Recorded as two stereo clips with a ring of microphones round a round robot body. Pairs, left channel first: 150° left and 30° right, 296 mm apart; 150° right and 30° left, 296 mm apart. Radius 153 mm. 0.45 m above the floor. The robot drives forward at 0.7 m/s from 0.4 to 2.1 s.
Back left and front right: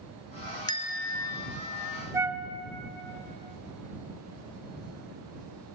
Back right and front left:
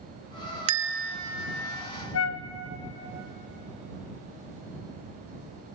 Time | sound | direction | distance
0.7 | a bell | 75° left | 0.7 m
2.1 | a flute | 110° right | 1.4 m